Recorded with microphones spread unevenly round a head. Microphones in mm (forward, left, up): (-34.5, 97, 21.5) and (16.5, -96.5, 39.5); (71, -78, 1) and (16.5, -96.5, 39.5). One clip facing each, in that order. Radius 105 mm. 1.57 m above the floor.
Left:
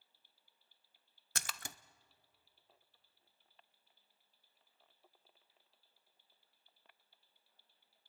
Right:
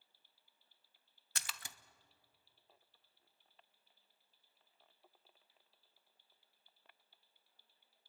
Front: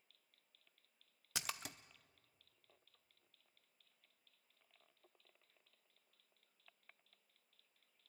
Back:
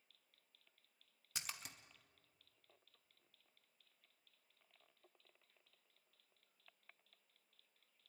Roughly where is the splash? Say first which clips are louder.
Left 4 dB, front 5 dB; ahead left.